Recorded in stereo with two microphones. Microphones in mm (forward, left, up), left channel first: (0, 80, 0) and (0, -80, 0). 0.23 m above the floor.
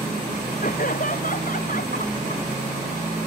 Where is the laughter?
55° left (ahead or behind).